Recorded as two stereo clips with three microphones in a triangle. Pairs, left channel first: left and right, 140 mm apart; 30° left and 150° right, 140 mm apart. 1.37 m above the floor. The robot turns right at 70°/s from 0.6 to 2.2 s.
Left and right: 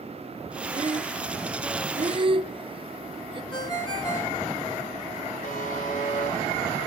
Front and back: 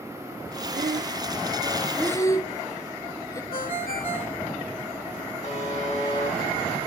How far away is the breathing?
About 0.7 m.